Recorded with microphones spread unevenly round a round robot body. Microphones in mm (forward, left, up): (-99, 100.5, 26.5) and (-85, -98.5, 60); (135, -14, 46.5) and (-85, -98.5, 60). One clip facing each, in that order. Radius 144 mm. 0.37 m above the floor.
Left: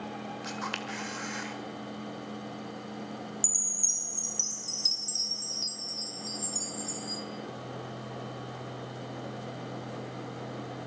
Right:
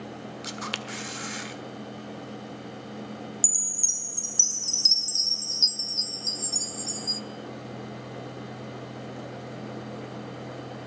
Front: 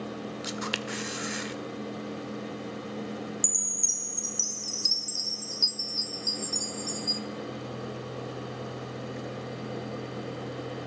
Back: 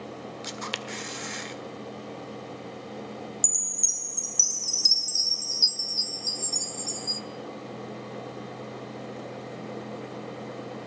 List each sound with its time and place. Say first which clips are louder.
0.4 s a camera shutter: right 1 dB, front 3 dB; 50° right, 1.7 m
3.4 s a chime: right 2 dB, front 2 dB; 100° right, 1.8 m